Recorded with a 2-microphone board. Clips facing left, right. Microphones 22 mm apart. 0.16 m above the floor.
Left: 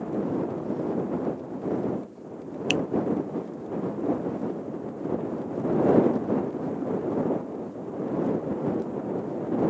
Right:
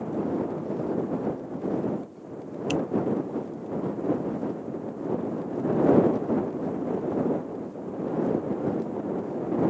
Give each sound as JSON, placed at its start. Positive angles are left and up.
{"t": 2.7, "sound": "a finger snap", "side_deg": 40}